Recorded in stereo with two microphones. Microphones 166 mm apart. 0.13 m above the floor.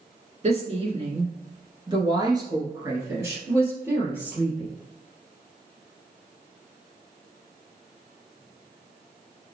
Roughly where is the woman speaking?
Right.